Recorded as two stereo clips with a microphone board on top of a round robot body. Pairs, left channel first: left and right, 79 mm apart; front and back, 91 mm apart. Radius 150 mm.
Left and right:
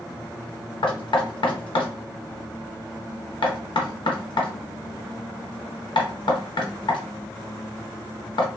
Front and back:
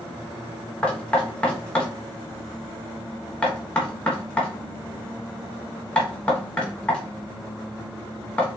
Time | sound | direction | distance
0.8 | knocking | 80° left | 0.9 m